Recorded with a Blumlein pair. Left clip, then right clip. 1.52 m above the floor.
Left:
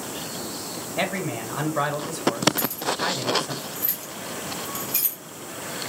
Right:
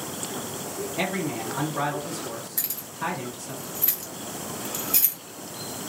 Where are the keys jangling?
45° right, 1.3 m.